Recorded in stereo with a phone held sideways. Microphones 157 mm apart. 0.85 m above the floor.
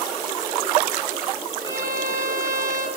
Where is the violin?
25° left (ahead or behind), 5.5 m.